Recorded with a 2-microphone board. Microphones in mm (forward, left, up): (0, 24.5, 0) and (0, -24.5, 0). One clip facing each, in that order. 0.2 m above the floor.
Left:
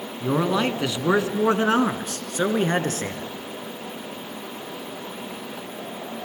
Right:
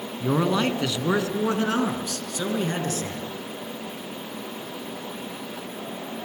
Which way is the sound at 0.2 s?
Centre (ahead or behind).